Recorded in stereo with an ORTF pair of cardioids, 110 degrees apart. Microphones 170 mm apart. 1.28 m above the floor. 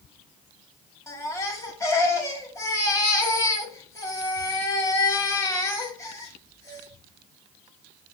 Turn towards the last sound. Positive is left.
turn(degrees=20)